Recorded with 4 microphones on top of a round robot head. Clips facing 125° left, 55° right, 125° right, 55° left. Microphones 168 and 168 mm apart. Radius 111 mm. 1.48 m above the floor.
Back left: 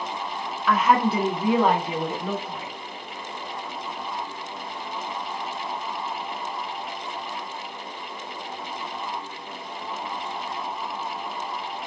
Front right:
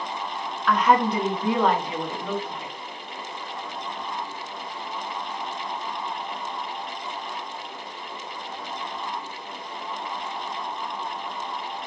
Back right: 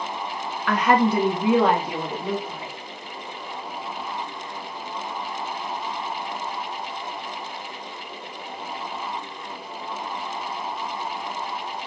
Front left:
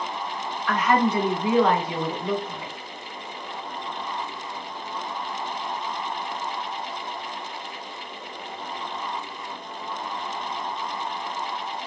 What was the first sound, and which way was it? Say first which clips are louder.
A woman speaking: even, back right 2 dB; 150° right.